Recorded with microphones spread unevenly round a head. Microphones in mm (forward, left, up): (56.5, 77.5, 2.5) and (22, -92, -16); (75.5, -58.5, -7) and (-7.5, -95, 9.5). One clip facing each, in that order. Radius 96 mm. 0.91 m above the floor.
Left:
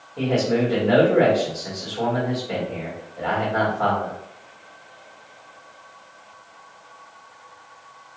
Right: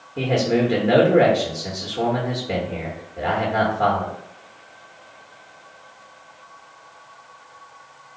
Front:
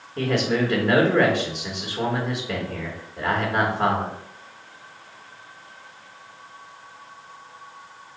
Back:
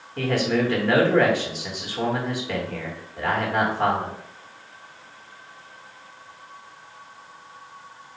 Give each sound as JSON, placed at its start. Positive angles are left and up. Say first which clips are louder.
{"t": 0.2, "sound": "a man speaking", "louder": "right 1 dB, even", "azimuth_deg": -60, "distance_m": 1.1}